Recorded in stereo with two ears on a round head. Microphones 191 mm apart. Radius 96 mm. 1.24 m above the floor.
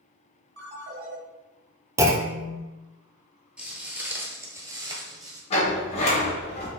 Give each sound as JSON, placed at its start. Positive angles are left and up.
{"t": 0.6, "sound": "a ringtone", "side_deg": -50, "distance_m": 1.8}
{"t": 2.0, "sound": "a clunk", "side_deg": -15, "distance_m": 0.5}
{"t": 3.6, "sound": "footsteps", "side_deg": -5, "distance_m": 1.2}
{"t": 5.5, "sound": "a sliding door", "side_deg": 30, "distance_m": 1.7}